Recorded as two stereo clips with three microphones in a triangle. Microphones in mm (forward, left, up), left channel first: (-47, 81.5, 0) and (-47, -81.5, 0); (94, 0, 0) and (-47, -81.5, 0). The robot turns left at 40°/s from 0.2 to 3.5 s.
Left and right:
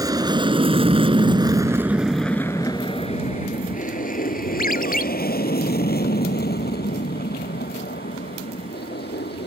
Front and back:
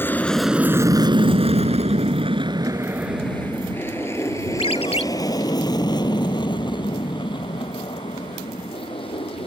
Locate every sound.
0.0 s an aircraft: 40° right; by 9.5 s 85° left
4.6 s a ringtone: 75° left